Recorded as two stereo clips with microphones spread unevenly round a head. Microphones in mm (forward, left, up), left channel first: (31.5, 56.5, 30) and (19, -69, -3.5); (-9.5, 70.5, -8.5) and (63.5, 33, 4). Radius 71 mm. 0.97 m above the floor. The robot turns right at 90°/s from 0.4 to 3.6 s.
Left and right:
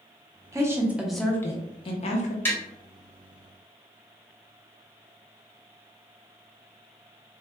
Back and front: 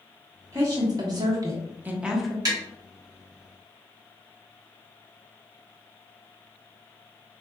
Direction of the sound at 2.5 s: 10° left.